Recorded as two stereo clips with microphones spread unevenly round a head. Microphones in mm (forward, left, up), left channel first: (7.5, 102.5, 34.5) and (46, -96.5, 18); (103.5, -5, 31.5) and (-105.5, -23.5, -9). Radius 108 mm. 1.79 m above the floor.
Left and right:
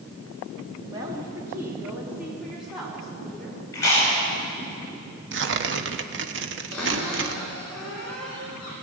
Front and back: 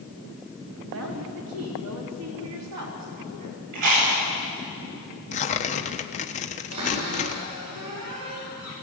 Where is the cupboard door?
175° right, 9 m.